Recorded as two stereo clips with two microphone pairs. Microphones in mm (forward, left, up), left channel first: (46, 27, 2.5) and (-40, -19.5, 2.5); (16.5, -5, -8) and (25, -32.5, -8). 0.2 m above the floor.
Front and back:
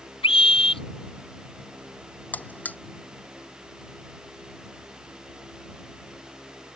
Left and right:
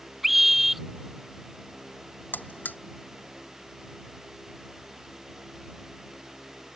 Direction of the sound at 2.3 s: 100° left.